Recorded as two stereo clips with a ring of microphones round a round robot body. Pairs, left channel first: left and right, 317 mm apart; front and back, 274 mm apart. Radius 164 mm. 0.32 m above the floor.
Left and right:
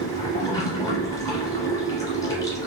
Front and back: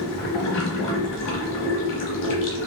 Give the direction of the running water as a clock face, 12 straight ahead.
12 o'clock.